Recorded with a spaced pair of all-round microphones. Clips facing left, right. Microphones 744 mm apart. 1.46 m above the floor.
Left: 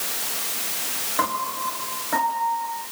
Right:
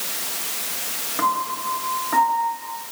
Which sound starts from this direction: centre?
A piano, at 1.2 s.